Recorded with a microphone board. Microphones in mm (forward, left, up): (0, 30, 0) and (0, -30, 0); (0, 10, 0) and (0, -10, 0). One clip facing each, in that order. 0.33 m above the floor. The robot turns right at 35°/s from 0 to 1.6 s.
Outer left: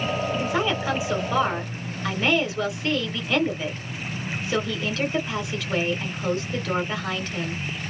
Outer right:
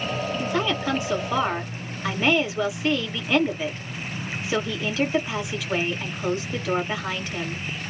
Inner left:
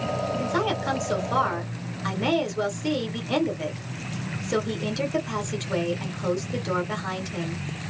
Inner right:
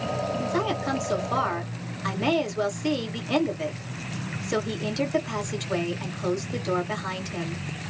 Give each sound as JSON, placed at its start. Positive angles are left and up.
{"t": 0.4, "sound": "a woman speaking", "azimuth_deg": 155, "distance_m": 1.7}